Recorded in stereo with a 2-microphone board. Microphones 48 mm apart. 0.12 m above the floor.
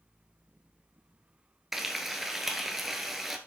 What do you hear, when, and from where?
1.7 s frying: 5° right (ahead or behind), 1.1 m